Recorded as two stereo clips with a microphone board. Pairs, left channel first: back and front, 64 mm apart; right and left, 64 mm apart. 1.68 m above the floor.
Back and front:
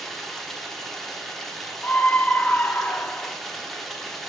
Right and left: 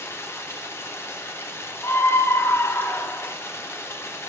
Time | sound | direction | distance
0.0 | running water | 100° right | 1.0 m
1.8 | a scream | 125° right | 0.8 m